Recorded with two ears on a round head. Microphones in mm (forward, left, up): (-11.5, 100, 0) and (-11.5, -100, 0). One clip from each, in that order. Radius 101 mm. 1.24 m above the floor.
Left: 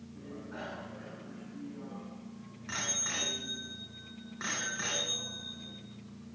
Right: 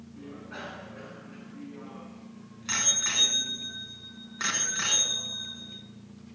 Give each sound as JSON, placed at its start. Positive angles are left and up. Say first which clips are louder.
{"t": 0.2, "sound": "a bicycle bell", "louder": "right 3 dB", "side_deg": -85, "distance_m": 9.0}